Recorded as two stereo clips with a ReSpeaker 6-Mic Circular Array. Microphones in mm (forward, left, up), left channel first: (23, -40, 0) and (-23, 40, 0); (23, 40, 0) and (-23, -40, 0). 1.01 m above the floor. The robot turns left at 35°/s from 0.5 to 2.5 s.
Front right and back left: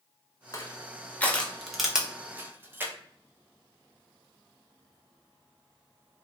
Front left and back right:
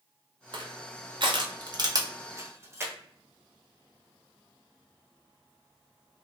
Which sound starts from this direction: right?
Crushing, at 0.5 s.